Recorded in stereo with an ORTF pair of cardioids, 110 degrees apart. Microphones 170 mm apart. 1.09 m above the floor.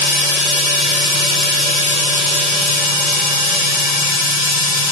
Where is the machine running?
60° left, 0.8 m.